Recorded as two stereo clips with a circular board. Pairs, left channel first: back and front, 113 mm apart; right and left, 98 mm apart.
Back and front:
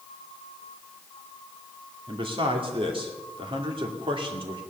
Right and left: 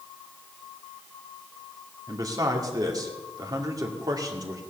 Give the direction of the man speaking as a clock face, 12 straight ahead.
11 o'clock.